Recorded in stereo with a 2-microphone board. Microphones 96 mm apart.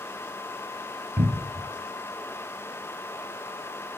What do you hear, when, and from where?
1.2 s a cupboard door: 35° right (ahead or behind), 1.4 m